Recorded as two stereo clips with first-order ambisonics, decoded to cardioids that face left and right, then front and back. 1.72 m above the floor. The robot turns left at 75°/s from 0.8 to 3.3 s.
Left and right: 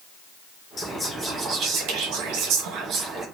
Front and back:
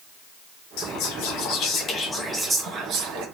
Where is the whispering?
20° left, 1.3 m; by 3.2 s 160° right, 1.3 m.